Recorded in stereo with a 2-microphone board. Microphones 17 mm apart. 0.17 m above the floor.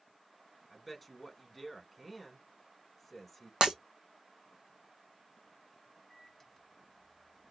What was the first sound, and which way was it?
A man speaking, 5° left (ahead or behind).